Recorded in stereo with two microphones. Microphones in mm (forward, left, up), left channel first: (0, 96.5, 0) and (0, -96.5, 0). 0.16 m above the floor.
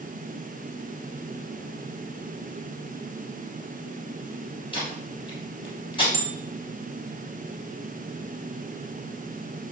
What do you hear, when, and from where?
4.7 s tape being pulled: 25° left (ahead or behind), 3.5 m
6.1 s a bell: 55° right (ahead or behind), 1.1 m